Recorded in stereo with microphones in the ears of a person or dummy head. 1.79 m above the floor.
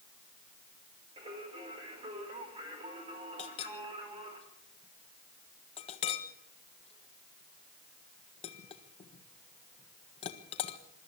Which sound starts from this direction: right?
Singing, at 1.2 s.